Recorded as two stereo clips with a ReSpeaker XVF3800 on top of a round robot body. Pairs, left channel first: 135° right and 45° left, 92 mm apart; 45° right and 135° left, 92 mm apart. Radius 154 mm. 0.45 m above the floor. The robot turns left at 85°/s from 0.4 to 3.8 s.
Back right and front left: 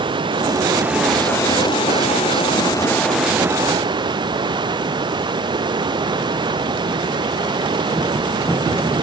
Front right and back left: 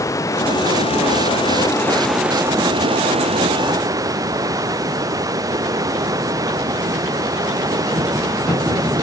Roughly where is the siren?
I don't hear a siren.